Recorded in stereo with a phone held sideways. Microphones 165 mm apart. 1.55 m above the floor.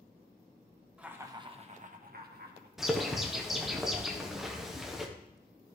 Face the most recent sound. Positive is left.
turn(degrees=0)  # may be behind; listen again after turning